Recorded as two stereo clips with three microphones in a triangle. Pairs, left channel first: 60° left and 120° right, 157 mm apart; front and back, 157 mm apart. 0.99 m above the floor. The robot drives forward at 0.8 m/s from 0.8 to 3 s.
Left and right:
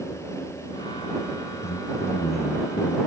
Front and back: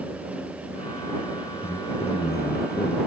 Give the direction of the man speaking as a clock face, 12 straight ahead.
10 o'clock.